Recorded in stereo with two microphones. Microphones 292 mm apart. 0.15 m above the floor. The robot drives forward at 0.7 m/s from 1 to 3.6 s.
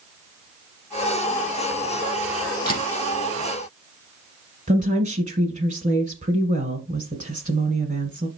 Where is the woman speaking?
25° right (ahead or behind), 1.4 m.